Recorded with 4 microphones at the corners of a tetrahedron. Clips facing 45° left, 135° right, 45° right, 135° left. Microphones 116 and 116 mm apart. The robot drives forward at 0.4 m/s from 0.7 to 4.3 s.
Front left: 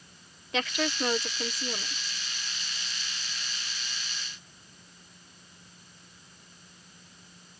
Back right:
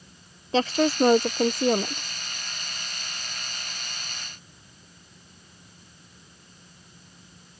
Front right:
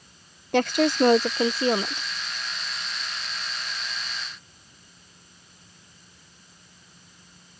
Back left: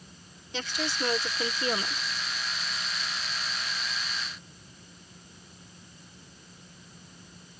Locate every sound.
0.5 s a woman speaking: 75° right; by 2.1 s 115° right